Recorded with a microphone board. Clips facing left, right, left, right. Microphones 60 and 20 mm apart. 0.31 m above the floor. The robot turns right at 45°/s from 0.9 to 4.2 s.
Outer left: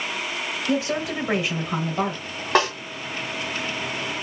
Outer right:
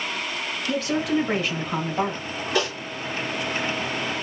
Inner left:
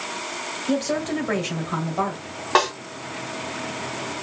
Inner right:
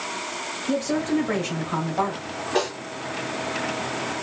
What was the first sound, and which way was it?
A woman speaking, 135° left.